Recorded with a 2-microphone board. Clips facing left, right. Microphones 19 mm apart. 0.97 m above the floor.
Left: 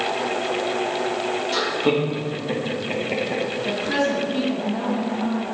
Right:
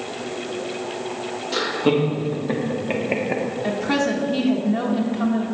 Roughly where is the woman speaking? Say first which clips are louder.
Right 1 dB; right.